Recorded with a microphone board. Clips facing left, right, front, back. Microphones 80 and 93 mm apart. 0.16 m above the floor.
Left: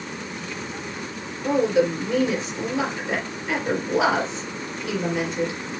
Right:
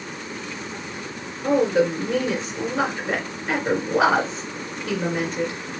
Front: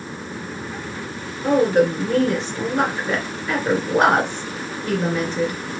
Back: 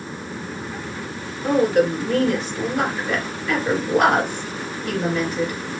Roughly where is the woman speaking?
Ahead right.